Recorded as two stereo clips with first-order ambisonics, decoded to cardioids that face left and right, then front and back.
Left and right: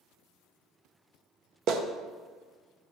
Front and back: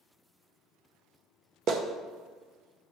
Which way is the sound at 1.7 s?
130° right.